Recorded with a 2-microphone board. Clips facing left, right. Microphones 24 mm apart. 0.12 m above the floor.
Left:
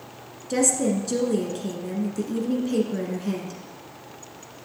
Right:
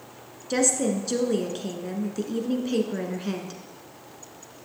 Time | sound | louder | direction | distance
0.5 | a woman speaking | left 1 dB | 20° right (ahead or behind) | 1.3 m